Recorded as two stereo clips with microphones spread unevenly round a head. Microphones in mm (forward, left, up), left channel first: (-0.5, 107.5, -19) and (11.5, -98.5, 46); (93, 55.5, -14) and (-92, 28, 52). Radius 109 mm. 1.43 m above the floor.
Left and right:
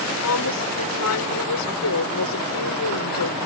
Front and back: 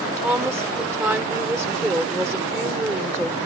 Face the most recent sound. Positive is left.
turn(degrees=110)